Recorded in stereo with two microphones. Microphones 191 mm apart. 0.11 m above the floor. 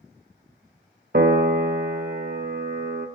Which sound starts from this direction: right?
A piano, at 1.1 s.